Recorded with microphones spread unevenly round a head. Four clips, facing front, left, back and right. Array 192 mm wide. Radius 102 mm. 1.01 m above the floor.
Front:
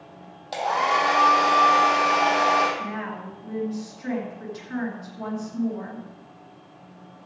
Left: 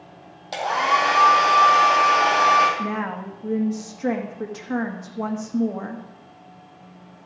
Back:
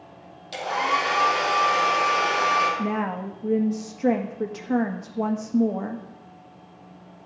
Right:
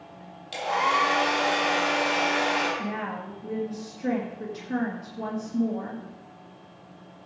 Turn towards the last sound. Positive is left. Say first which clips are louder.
# left 5 dB, back 5 dB
turn(degrees=160)